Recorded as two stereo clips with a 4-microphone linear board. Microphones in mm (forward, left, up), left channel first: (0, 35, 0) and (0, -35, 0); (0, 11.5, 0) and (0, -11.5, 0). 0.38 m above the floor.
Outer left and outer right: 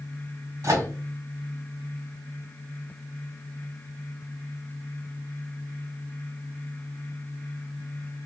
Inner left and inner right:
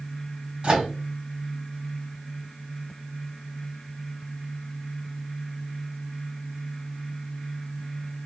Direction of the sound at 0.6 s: 45° right (ahead or behind).